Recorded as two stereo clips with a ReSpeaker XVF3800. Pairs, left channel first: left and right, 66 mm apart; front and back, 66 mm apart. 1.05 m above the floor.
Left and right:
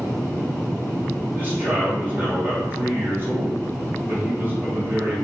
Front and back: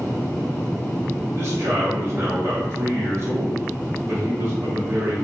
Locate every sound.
1.4 s a man speaking: 140° right, 1.1 m